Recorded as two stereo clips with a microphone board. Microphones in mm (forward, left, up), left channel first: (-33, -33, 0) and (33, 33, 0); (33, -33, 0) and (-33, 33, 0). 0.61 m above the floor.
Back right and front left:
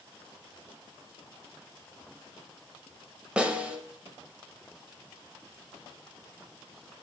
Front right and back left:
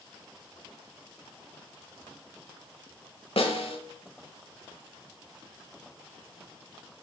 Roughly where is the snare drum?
Ahead right.